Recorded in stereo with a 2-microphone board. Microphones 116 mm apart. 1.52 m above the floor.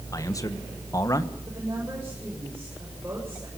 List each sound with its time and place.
0.1 s a man speaking: 30° left (ahead or behind), 1.6 m
1.5 s a woman speaking: 25° right (ahead or behind), 7.5 m